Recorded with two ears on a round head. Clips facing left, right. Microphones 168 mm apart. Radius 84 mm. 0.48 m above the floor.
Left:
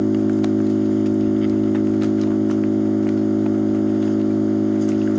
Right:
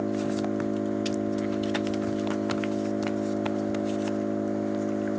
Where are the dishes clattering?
No dishes clattering in this recording.